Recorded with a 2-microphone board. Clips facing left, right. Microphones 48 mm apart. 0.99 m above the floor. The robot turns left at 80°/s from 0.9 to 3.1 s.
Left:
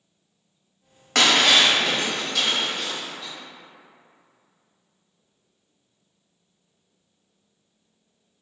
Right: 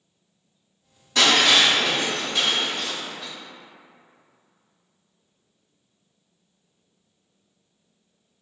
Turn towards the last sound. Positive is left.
turn(degrees=-90)